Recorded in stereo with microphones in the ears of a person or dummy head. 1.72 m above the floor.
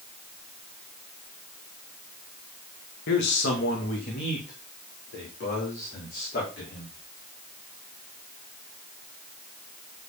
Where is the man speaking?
70° left (ahead or behind), 2.0 m; by 6.9 s 50° left (ahead or behind), 4.5 m.